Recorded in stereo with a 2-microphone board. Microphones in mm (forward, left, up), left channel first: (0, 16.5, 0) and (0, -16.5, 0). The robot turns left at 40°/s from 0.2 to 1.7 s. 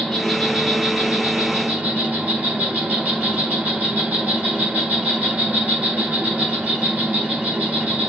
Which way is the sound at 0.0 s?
Straight ahead.